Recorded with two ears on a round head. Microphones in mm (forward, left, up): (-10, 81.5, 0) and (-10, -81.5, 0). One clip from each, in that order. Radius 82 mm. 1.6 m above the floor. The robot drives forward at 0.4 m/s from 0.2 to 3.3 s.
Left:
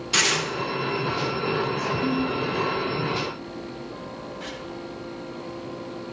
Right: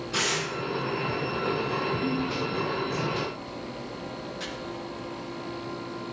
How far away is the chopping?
About 4 m.